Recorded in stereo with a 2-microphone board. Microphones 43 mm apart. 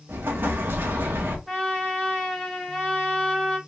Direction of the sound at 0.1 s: 55° right (ahead or behind).